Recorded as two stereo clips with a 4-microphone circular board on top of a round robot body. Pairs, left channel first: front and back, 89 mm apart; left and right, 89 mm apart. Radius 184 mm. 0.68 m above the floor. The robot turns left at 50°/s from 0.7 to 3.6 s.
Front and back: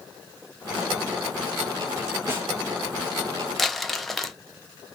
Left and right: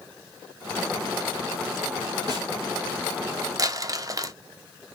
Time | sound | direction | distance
2.3 | a snare drum | 120° right | 1.2 m
3.6 | crumpling | 85° right | 0.6 m